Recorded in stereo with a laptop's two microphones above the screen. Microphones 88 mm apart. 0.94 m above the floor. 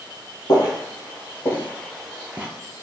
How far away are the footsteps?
About 1.4 m.